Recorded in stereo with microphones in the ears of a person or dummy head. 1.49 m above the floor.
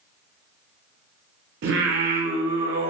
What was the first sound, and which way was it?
Singing, 60° right (ahead or behind).